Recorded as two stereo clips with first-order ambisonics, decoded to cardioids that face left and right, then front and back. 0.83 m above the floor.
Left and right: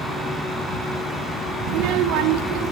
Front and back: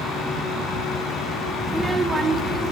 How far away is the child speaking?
About 0.5 m.